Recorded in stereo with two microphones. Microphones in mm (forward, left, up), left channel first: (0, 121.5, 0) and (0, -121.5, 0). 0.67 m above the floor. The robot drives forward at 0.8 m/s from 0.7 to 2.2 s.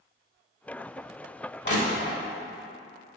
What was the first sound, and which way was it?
Crushing, 50° left (ahead or behind).